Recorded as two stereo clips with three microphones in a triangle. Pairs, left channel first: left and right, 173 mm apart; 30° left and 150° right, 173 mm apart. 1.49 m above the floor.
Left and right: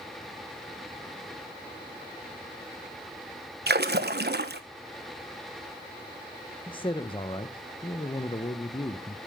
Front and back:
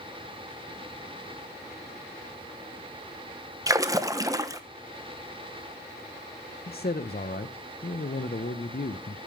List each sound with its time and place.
3.7 s a splash: 80° right, 1.0 m
6.7 s a man speaking: 35° left, 0.8 m